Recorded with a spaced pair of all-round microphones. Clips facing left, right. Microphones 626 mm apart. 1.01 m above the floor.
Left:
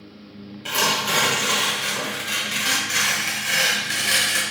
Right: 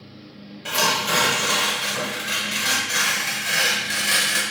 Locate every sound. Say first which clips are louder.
0.7 s tearing paper: right 1 dB; 10° right (ahead or behind), 0.9 m